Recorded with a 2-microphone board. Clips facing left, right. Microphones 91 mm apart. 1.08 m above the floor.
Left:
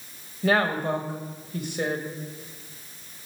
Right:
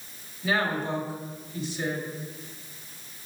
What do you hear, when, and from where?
0.4 s a woman speaking: 55° left (ahead or behind), 1.0 m